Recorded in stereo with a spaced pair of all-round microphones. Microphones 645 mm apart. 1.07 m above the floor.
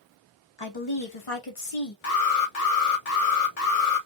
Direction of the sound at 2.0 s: 60° left (ahead or behind).